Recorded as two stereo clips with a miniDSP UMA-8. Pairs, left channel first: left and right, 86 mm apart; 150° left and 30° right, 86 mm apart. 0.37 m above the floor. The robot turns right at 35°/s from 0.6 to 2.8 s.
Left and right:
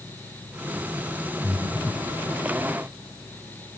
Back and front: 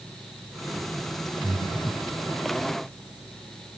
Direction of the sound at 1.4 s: 30° right.